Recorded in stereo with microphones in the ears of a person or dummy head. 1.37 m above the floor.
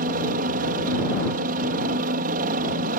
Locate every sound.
0.0 s a helicopter: 40° right (ahead or behind)